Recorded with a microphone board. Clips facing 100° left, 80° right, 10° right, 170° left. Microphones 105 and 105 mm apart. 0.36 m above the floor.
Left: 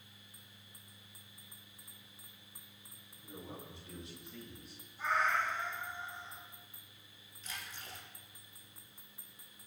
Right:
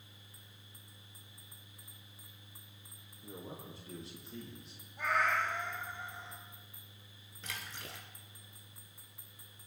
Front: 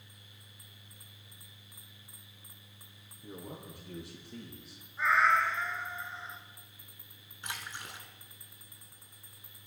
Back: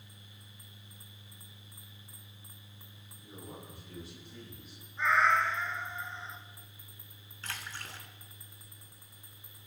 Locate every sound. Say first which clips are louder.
3.2 s a man speaking: right 1 dB, front 3 dB; 30° right, 6 m; by 4.8 s 20° right, 6 m
5.0 s a cat meowing: right 1 dB, even; 100° right, 2.5 m
7.4 s a splash: right 2 dB, front 1 dB; 85° right, 1.7 m